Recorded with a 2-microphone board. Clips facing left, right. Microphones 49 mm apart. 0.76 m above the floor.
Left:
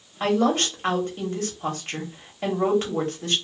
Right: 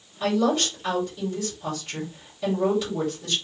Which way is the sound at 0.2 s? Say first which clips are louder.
Left 1 dB; 45° left (ahead or behind).